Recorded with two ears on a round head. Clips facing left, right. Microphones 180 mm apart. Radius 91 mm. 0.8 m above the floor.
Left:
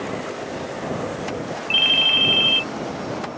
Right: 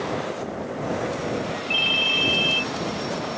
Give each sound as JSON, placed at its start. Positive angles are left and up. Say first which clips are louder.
{"t": 1.7, "sound": "a ringtone", "louder": "even", "side_deg": 35}